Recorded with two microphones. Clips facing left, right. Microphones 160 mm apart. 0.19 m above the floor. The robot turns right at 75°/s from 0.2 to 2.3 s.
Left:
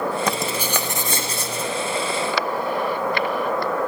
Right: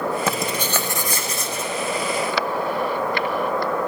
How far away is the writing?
About 1.5 m.